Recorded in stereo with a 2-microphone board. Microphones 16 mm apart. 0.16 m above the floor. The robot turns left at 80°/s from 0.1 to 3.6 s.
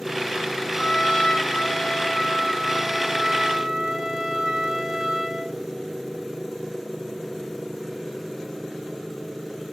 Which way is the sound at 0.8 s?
145° left.